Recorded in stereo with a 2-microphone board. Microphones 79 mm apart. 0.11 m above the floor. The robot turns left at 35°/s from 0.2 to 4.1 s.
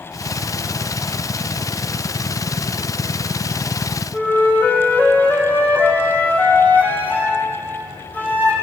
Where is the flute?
25° left (ahead or behind), 2.5 m.